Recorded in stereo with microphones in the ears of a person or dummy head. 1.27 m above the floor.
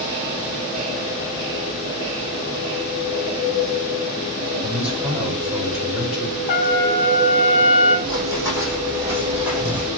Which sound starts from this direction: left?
A trumpet, at 6.5 s.